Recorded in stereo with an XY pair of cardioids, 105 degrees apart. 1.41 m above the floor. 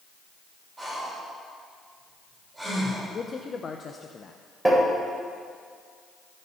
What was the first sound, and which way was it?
Breathing, 15° right.